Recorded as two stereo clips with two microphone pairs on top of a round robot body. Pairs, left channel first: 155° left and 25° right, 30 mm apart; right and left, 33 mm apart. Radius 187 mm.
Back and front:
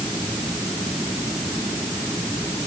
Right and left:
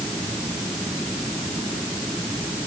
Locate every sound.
Only background noise.